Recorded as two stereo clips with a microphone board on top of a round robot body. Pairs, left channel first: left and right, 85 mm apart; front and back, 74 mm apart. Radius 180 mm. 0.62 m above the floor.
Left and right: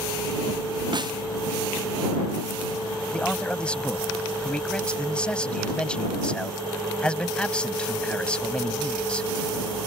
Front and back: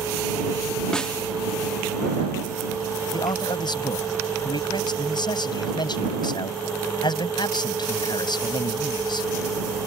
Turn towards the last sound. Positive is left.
turn(degrees=10)